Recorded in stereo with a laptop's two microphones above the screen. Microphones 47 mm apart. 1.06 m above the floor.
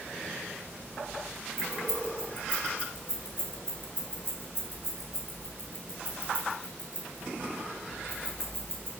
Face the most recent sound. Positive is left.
turn(degrees=55)  # may be behind; listen again after turning